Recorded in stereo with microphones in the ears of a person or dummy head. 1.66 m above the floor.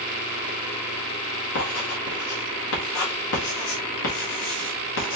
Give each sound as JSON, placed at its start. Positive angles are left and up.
{"t": 1.6, "sound": "writing", "side_deg": 65, "distance_m": 1.7}